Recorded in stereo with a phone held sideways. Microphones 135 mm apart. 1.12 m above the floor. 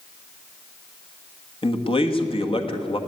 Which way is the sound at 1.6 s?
40° left (ahead or behind).